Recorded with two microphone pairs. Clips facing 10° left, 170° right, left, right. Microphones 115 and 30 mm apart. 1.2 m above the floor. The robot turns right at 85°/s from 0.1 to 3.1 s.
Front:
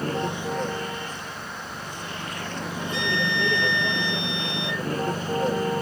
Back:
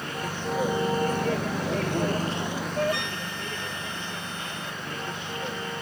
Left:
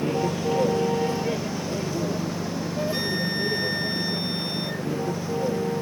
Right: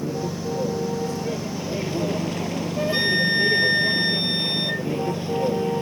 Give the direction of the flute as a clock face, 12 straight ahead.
5 o'clock.